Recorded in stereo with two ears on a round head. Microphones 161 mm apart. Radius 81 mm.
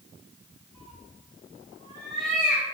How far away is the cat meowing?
About 1.9 m.